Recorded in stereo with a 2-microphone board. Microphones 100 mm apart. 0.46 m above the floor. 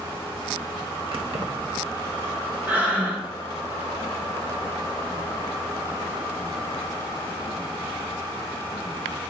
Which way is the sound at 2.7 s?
20° right (ahead or behind).